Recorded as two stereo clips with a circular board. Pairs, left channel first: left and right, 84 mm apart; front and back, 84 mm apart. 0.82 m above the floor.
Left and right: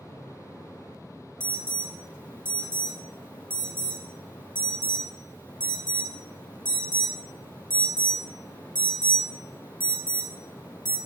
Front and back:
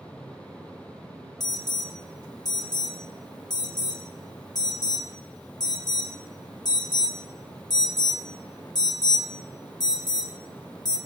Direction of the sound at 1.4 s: 20° left.